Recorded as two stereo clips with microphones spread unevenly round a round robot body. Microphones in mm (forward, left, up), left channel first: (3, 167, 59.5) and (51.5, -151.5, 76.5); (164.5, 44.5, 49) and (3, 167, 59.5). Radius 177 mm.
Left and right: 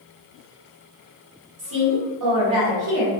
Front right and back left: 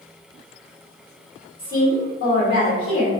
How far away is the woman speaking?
About 1.3 m.